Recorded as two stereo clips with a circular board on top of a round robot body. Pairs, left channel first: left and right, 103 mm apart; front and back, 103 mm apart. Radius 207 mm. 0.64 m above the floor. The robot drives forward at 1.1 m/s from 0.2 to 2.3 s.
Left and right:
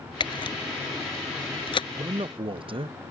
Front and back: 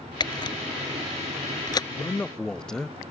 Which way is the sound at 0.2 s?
45° left.